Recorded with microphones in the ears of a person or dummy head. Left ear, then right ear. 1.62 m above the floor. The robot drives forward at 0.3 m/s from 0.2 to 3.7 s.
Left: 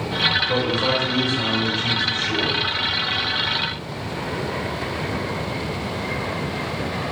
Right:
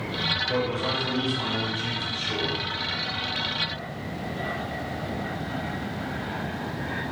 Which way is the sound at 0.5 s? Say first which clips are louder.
Left 6 dB; 35° right (ahead or behind).